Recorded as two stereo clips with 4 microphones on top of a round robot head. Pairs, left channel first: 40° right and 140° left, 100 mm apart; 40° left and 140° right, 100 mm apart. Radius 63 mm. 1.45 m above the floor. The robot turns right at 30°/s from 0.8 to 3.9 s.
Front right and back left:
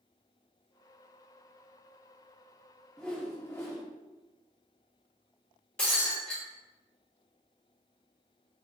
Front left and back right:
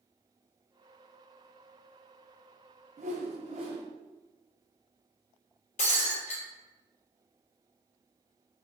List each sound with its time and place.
3.0 s a whoosh: 125° right, 0.6 m; by 3.8 s 100° right, 0.6 m
5.8 s breaking glass: 40° left, 1.0 m